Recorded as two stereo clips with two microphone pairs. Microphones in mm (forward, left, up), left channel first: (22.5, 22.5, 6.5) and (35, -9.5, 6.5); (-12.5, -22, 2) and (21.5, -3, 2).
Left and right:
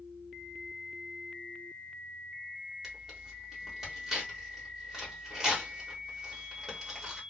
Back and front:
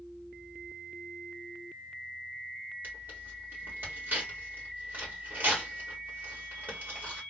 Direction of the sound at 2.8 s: 5° left.